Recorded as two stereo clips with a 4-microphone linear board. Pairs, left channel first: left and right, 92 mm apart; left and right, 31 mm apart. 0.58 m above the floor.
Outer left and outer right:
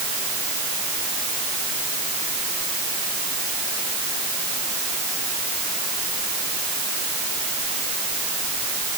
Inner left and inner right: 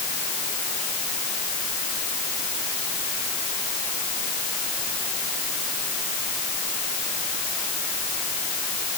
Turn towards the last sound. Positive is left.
No sound to turn to.